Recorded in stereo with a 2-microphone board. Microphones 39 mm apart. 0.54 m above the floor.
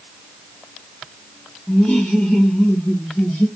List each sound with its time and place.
1.7 s laughter: 30° left (ahead or behind), 1.1 m; by 3.5 s 35° left (ahead or behind), 1.2 m